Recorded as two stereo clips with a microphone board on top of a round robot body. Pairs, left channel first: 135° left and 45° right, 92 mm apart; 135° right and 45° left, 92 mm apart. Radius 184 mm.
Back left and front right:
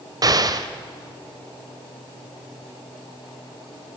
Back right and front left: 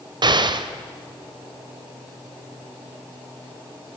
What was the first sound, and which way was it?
An explosion, 5° left.